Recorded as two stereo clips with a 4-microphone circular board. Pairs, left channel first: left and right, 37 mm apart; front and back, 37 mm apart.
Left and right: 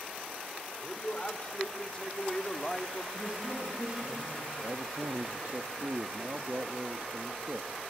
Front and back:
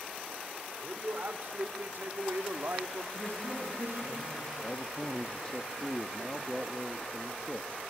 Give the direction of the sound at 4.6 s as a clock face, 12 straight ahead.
2 o'clock.